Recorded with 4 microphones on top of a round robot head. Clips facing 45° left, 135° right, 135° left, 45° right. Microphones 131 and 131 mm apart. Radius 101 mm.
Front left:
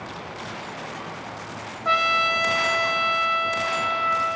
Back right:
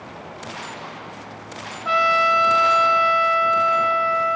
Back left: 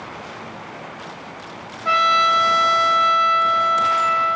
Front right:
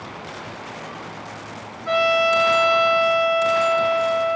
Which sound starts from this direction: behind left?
A trumpet, at 1.9 s.